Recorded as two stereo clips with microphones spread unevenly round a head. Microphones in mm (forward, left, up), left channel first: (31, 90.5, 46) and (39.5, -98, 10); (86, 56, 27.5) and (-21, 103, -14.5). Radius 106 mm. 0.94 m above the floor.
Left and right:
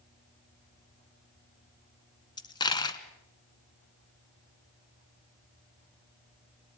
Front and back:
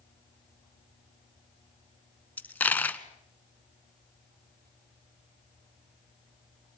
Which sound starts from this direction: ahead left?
A dropped coin, at 2.4 s.